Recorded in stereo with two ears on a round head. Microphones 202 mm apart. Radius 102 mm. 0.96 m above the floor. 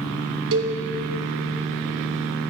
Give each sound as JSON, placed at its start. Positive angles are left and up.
{"t": 0.5, "sound": "a cowbell", "side_deg": -60, "distance_m": 1.0}